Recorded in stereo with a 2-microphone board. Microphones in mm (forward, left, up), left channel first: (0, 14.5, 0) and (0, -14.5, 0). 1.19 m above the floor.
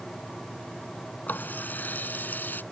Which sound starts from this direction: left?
A running tap, at 1.3 s.